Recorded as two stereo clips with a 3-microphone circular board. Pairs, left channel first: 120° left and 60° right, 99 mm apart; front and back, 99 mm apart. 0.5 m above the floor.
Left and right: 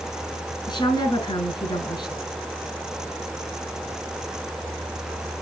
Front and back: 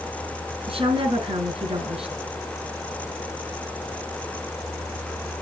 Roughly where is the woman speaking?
Behind.